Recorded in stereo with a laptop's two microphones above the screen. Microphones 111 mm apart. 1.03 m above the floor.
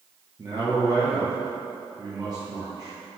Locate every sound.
0.4 s a man speaking: 35° right (ahead or behind), 0.6 m